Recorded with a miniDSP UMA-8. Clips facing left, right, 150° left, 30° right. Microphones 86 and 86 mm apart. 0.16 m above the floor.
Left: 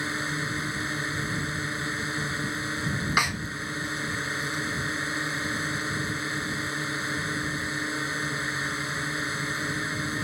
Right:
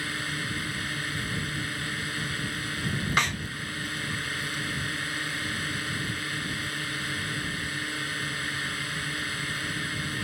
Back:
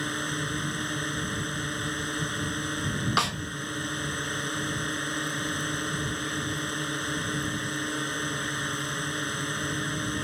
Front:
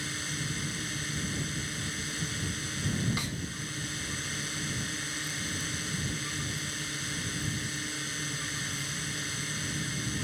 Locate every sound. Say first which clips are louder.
0.0 s a drone: left 3 dB, back 7 dB; 145° left
3.2 s a snare drum: left 1 dB, back 10 dB; 170° left